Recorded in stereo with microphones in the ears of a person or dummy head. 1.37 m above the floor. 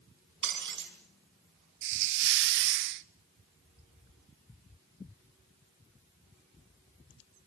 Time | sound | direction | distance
0.4 | breaking glass | 65° right (ahead or behind) | 5 m
1.8 | a hiss | 55° right (ahead or behind) | 0.6 m